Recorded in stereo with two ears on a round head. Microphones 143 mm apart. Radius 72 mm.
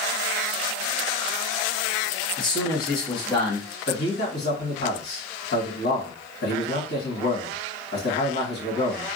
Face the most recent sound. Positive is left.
turn(degrees=70)  # may be behind; listen again after turning